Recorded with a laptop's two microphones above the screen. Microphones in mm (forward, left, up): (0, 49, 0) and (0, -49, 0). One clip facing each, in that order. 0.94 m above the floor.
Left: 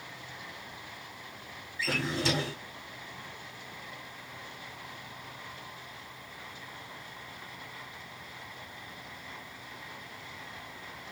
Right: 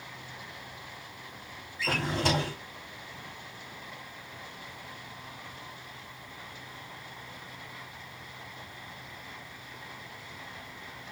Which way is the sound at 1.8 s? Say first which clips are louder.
Right 2 dB; 50° right (ahead or behind).